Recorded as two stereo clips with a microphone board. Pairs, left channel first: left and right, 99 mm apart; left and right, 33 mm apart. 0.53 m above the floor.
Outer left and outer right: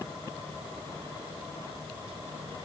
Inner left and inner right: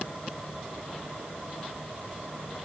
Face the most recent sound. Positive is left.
No sound to turn to.